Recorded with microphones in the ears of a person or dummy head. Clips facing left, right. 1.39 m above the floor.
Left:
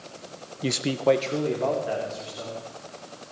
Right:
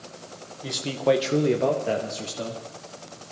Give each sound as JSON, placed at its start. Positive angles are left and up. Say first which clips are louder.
{"t": 0.6, "sound": "a man speaking", "louder": "left 1 dB", "side_deg": 45, "distance_m": 0.9}